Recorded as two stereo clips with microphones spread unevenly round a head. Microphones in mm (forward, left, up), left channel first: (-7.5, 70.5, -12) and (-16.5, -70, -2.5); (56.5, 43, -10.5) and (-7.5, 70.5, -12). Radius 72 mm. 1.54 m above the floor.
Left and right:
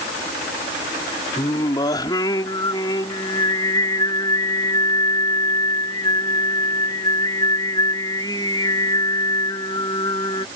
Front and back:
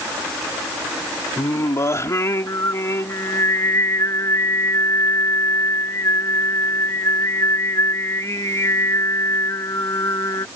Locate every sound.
1.4 s singing: 20° left